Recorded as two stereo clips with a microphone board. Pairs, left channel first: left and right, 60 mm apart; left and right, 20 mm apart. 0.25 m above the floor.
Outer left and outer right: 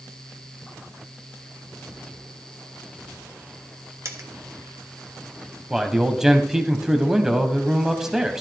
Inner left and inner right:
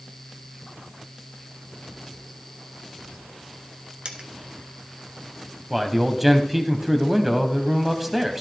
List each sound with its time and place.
4.0 s a dropped coin: 55° right (ahead or behind), 1.6 m
5.7 s a man speaking: 10° right (ahead or behind), 1.1 m